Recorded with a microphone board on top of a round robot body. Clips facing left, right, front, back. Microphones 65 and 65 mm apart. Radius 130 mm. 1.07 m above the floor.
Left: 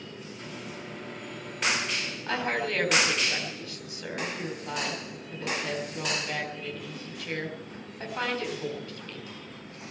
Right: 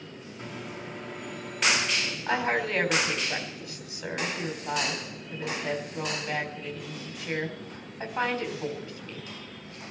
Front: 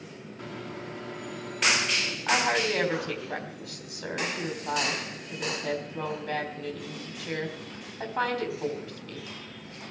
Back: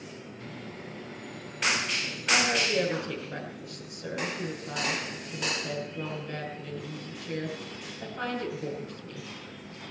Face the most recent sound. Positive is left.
turn(degrees=-15)